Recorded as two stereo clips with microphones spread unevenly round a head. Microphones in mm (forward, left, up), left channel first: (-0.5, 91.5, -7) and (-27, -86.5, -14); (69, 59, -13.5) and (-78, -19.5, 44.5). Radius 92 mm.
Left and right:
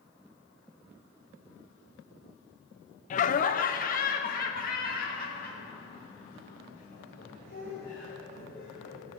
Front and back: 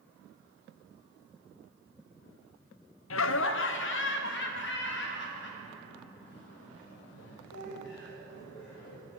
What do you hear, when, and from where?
3.1 s laughter: 35° left, 0.6 m; by 9.2 s 40° left, 7.5 m